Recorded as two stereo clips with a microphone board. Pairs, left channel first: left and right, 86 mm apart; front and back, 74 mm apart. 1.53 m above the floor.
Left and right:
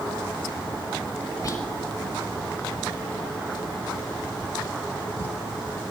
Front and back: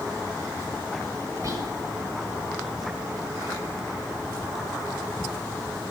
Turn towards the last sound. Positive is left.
turn(degrees=140)